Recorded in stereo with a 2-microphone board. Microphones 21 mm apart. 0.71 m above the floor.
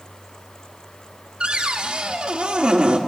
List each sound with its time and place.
1.4 s a cupboard door: 45° right (ahead or behind), 1.1 m